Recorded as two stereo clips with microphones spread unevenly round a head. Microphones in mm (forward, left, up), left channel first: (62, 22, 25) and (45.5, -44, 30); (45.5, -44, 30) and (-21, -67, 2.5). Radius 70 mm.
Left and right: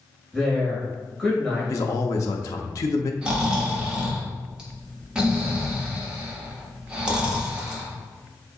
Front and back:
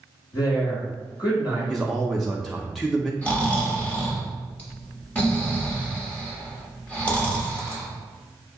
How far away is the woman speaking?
About 1.9 m.